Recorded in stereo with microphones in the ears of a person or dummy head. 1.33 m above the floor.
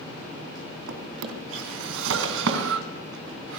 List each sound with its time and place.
0.9 s a drawer: 70° right (ahead or behind), 3 m